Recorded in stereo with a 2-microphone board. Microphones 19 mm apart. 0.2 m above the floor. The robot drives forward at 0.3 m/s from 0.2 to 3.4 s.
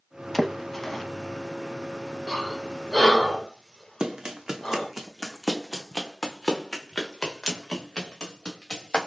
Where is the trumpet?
No trumpet in this recording.